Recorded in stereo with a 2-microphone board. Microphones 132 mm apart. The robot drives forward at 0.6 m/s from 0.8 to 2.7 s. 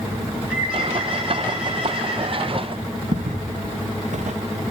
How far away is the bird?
About 4 m.